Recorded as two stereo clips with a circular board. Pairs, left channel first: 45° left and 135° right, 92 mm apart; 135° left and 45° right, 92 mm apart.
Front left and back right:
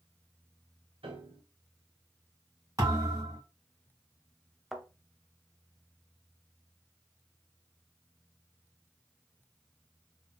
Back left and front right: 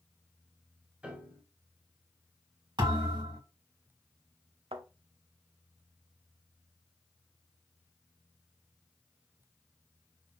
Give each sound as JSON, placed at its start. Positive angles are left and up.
{"t": 1.0, "sound": "a piano", "azimuth_deg": -125, "distance_m": 0.9}
{"t": 2.8, "sound": "a thud", "azimuth_deg": -80, "distance_m": 2.5}
{"t": 4.7, "sound": "a thud", "azimuth_deg": -45, "distance_m": 0.7}